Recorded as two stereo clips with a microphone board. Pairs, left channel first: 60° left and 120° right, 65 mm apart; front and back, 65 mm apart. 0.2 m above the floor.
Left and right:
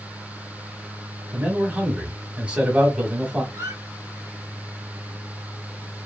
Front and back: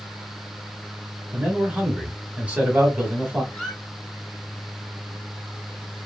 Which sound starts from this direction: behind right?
A man speaking, at 1.3 s.